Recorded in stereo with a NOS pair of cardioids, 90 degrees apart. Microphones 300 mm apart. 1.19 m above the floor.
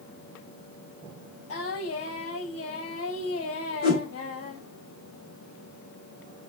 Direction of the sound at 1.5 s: 50° left.